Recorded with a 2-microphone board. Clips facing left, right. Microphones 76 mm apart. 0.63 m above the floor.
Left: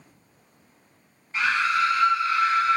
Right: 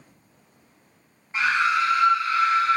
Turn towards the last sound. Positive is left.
turn(degrees=15)  # may be behind; listen again after turning